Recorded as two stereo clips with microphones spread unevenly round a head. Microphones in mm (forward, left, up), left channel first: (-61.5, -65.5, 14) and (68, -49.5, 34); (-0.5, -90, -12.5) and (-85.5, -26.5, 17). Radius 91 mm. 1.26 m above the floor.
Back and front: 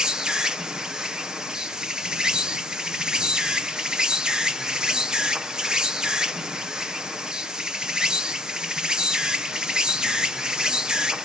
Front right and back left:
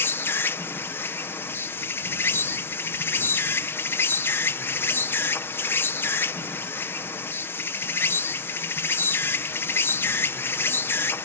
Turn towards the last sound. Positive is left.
turn(degrees=-85)